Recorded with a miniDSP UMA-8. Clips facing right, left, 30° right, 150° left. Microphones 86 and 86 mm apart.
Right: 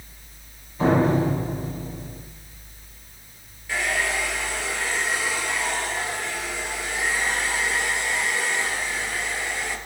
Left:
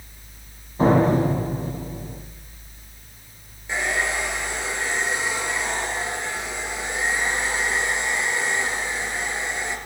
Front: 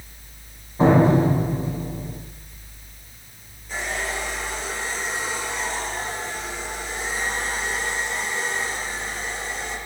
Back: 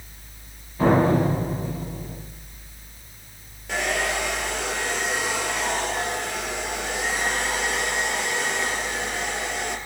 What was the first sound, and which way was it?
A door slam, 35° left.